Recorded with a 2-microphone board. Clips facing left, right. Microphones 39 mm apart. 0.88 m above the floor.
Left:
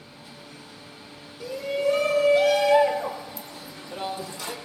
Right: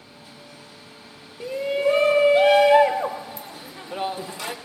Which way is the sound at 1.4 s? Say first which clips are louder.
Right 3 dB; 35° right (ahead or behind).